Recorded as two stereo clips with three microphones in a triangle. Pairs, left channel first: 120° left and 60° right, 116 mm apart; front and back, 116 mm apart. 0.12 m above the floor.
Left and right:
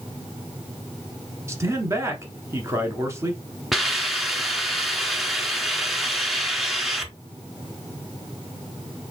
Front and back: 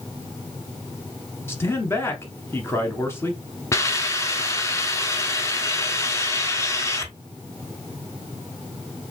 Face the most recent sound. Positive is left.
turn(degrees=30)